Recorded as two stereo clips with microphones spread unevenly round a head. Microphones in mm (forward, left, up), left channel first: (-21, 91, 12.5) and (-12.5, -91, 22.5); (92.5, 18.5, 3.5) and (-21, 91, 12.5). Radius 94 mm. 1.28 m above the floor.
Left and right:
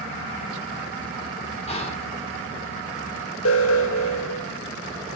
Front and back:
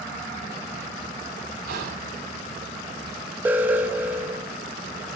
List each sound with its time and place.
1.7 s whispering: 150° left, 4.5 m
3.5 s an alarm: 70° left, 1.0 m